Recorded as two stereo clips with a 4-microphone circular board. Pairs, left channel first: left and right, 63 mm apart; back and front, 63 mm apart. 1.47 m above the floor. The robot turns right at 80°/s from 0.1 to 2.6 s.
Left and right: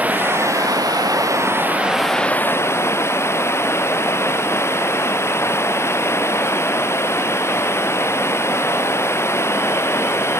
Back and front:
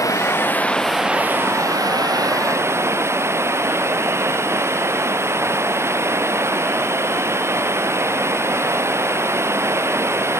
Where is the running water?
155° right; by 10.4 s 45° left.